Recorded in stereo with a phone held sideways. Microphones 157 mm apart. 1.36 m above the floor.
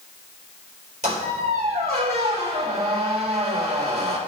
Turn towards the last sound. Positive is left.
turn(degrees=-45)  # may be behind; listen again after turning